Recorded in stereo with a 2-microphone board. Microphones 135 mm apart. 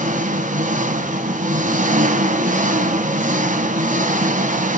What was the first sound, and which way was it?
An engine running, 75° right (ahead or behind).